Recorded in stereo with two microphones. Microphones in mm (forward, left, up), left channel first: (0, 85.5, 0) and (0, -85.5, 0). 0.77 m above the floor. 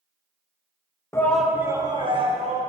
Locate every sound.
1.1 s a shout: 15° left (ahead or behind), 0.6 m; by 2.6 s 35° right (ahead or behind), 1.3 m